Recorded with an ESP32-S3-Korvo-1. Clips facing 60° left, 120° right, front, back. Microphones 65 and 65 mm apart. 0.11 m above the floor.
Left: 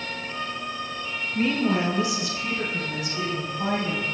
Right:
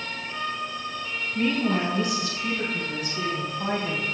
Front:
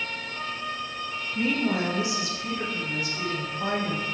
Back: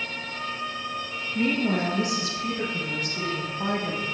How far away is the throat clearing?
I don't hear throat clearing.